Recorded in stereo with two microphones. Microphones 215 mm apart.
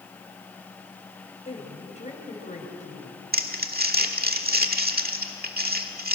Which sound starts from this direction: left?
A woman speaking, at 1.4 s.